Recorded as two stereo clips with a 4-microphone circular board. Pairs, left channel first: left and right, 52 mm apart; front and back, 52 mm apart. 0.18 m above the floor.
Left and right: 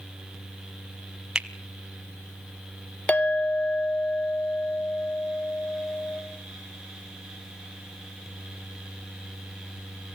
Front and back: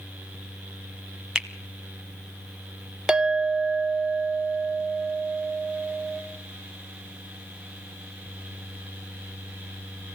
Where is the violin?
No violin in this recording.